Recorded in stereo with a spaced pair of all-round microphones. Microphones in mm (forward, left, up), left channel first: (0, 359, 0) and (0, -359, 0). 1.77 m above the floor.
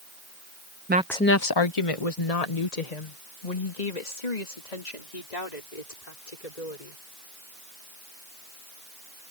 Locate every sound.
0.9 s a woman speaking: 20° right (ahead or behind); by 7.0 s 85° left